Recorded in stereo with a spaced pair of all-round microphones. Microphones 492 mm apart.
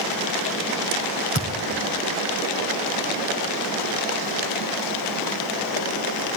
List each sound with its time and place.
1.4 s a thud: 30° left (ahead or behind), 3.5 m